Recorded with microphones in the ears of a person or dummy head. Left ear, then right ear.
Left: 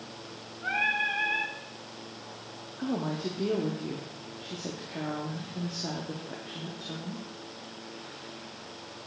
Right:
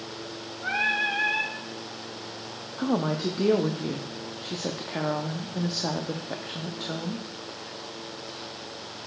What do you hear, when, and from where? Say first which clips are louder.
0.6 s singing: right 2 dB; centre (ahead or behind), 1.0 m
2.8 s a woman speaking: right 6 dB; 30° right (ahead or behind), 0.5 m